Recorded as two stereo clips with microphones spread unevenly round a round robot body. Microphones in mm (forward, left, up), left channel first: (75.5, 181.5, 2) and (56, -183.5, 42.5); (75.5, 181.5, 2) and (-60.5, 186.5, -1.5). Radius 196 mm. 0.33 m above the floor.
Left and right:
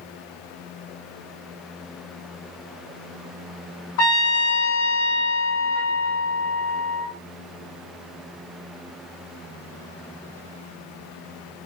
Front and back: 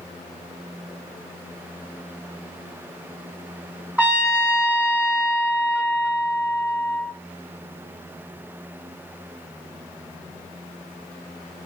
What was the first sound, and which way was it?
A trumpet, 95° left.